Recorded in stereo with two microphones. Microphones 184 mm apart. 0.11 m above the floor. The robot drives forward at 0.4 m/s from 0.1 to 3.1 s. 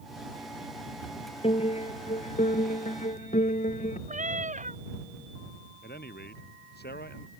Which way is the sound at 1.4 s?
35° left (ahead or behind).